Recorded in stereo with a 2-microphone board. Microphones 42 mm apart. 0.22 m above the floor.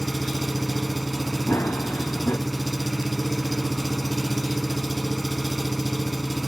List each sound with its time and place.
0.0 s an engine running: centre (ahead or behind), 0.8 m
1.5 s running footsteps: 80° left, 1.4 m